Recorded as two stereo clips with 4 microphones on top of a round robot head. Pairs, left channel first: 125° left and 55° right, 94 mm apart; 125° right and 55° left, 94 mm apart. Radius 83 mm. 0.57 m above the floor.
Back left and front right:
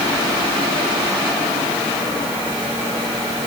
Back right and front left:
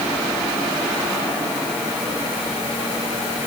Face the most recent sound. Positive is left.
No sound to turn to.